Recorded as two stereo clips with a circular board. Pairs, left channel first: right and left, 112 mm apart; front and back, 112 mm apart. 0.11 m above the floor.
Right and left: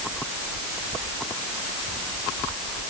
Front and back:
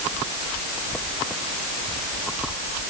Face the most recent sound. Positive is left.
No sound to turn to.